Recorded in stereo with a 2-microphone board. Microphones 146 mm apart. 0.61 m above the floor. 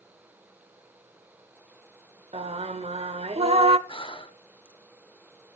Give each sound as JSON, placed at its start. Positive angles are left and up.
{"t": 2.3, "sound": "singing", "side_deg": -45, "distance_m": 0.6}
{"t": 3.9, "sound": "breathing", "side_deg": 35, "distance_m": 0.8}